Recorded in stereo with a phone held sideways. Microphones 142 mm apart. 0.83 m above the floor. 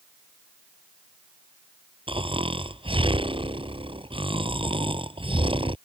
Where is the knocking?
I don't hear knocking.